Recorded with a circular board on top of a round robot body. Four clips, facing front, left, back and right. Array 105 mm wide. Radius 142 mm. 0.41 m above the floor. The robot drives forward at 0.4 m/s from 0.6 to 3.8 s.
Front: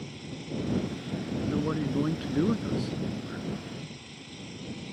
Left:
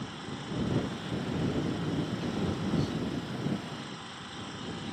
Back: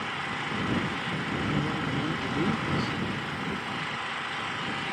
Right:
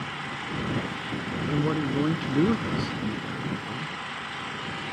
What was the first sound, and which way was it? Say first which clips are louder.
An engine running: right 5 dB, back 7 dB; 150° right.